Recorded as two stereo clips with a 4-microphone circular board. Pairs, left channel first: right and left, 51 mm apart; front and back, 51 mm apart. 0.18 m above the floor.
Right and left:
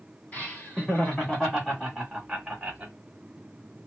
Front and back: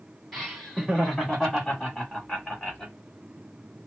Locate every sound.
0.3 s laughter: 90° right, 1.8 m; by 2.9 s 45° left, 1.6 m